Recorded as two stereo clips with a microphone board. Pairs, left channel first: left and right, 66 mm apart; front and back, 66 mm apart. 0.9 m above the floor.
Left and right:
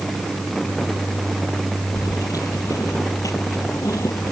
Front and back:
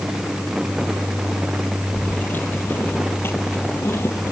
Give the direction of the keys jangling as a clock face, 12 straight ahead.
10 o'clock.